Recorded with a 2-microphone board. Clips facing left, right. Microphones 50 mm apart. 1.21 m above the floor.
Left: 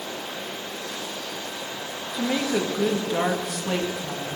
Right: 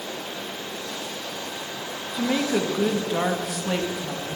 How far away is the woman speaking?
About 2.0 m.